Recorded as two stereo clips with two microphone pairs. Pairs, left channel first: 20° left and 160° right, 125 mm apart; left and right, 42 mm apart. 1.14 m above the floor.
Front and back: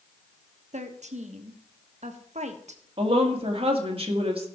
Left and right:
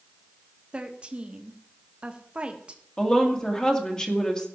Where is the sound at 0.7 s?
150° right, 1.3 m.